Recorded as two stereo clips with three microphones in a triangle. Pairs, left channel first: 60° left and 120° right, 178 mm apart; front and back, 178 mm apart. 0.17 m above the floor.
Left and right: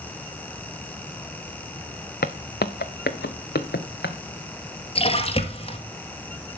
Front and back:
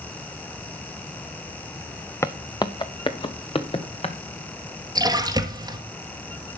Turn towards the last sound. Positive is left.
turn(degrees=115)